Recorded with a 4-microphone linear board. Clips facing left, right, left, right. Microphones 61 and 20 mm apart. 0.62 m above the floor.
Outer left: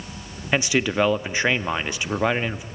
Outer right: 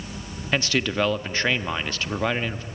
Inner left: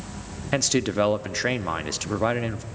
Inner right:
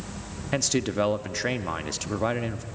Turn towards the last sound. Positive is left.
turn(degrees=15)  # may be behind; listen again after turning